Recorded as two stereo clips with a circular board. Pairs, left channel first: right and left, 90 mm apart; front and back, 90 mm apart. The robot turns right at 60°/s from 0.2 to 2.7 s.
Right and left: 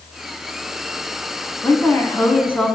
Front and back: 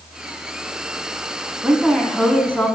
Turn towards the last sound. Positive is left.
turn(degrees=-40)